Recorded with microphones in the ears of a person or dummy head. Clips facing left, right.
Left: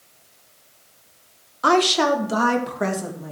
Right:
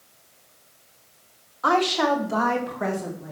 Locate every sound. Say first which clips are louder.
1.6 s a woman speaking: left 3 dB; 45° left (ahead or behind), 1.2 m; by 3.3 s 55° left (ahead or behind), 3 m